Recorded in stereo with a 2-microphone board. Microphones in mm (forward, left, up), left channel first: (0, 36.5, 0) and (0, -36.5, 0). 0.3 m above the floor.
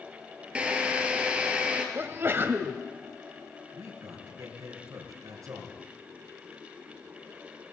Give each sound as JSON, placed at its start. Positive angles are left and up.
{"t": 0.6, "sound": "a drill", "side_deg": -15, "distance_m": 3.0}
{"t": 1.9, "sound": "a sneeze", "side_deg": -35, "distance_m": 1.2}
{"t": 3.7, "sound": "a man speaking", "side_deg": -55, "distance_m": 5.0}